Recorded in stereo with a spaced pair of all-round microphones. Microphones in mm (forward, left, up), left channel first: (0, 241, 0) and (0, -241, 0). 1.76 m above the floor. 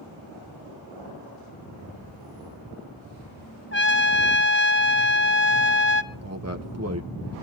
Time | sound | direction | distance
3.7 | a trumpet | 25° left (ahead or behind) | 1.0 m
6.1 | a man speaking | 30° right (ahead or behind) | 1.3 m